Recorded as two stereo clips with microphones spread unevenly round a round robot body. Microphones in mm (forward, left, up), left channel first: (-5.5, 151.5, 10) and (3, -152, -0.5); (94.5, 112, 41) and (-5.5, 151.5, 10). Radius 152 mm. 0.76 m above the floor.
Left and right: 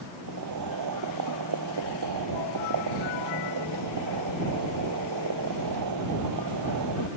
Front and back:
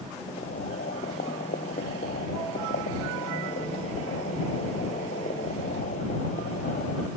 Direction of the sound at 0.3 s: 55° right.